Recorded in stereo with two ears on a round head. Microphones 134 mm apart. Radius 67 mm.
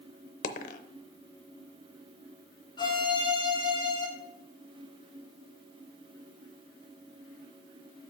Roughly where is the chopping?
I don't hear chopping.